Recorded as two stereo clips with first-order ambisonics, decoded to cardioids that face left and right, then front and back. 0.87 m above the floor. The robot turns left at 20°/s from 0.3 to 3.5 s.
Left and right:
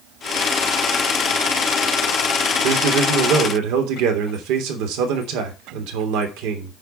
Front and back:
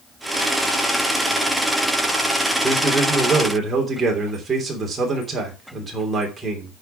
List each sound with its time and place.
2.6 s a man speaking: 90° right, 3 m; by 6.7 s 105° right, 3 m